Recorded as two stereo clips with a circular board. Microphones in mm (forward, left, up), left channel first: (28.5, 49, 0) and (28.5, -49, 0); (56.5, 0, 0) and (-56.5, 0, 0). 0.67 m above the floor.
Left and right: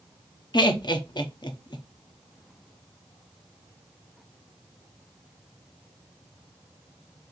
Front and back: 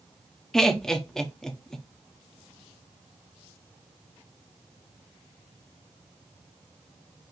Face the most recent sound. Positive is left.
turn(degrees=85)